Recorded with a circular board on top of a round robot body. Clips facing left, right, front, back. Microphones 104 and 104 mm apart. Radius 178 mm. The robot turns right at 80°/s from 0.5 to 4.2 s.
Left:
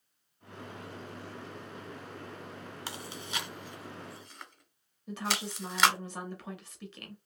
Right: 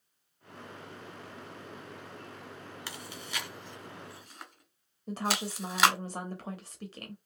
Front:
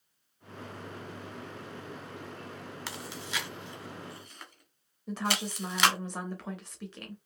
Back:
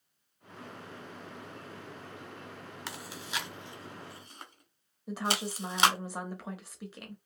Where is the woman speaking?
100° right, 0.9 m.